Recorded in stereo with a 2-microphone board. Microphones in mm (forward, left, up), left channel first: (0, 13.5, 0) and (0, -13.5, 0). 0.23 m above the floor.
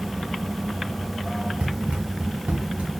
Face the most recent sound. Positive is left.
turn(degrees=-80)